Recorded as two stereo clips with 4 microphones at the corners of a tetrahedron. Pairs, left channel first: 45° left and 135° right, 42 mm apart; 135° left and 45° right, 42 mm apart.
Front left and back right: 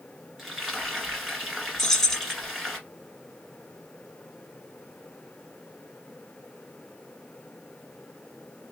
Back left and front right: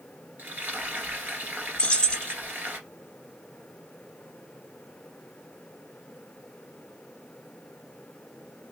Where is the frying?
50° right, 1.5 m.